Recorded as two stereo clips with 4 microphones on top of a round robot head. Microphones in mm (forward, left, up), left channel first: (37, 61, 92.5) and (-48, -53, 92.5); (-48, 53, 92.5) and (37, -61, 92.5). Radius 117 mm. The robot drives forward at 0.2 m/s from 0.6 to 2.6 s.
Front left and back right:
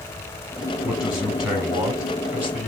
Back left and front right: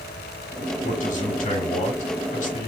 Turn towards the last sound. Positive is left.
turn(degrees=155)